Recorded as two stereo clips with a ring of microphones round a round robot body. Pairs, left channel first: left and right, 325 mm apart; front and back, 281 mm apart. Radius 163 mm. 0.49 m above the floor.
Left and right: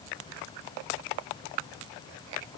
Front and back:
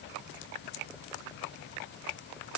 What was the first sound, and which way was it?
Only background noise.